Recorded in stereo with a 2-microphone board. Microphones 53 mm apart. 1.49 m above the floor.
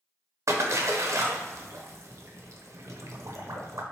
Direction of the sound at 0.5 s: 60° right (ahead or behind).